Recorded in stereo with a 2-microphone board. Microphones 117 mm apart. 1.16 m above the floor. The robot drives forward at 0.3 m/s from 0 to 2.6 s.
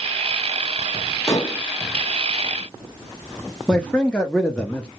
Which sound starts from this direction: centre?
A man speaking, at 3.7 s.